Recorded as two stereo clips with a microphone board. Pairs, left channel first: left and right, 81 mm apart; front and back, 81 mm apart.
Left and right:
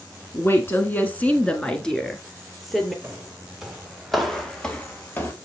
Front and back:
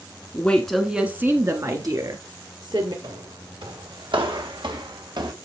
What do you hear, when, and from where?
0.3 s a woman speaking: 55° left, 1.5 m; by 2.9 s straight behind, 3 m
3.0 s footsteps: 170° right, 3 m; by 5.3 s 150° left, 2.0 m